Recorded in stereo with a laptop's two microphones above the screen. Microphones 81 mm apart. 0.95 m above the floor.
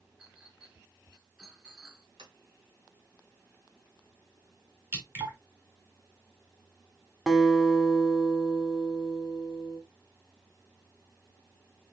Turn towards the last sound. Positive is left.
turn(degrees=0)  # may be behind; listen again after turning